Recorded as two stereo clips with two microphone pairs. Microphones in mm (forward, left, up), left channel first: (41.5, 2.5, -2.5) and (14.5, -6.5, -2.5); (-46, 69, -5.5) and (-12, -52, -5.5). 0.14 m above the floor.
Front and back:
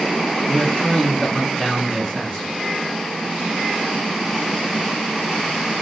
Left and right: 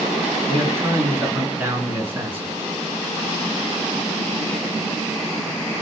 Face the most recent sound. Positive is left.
turn(degrees=-15)